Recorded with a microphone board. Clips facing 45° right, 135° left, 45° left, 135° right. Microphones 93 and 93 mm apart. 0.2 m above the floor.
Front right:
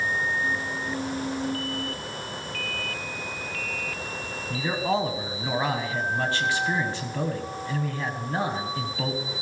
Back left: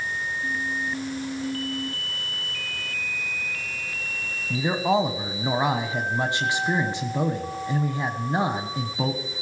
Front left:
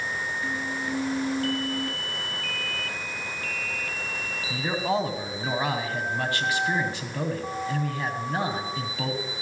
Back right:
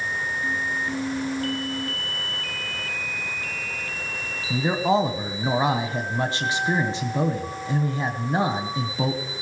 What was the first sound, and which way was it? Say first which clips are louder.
A man speaking: back left 4 dB, back right 5 dB; 175° right.